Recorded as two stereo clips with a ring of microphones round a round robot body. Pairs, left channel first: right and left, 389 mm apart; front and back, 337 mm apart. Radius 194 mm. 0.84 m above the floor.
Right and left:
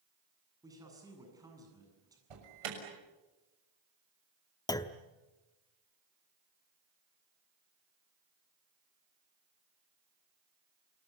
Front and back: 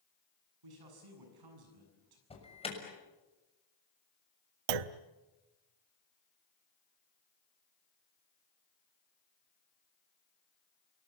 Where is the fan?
No fan in this recording.